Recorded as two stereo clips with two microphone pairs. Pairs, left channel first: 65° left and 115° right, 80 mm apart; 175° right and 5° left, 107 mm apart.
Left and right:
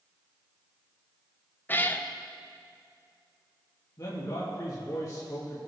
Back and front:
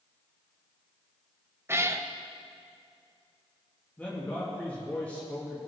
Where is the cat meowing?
40° left, 0.5 m.